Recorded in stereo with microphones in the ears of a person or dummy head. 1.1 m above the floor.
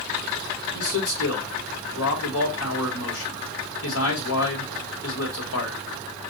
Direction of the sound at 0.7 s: 80° left.